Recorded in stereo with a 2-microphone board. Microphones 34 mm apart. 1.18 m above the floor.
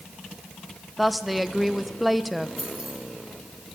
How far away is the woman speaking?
About 0.8 m.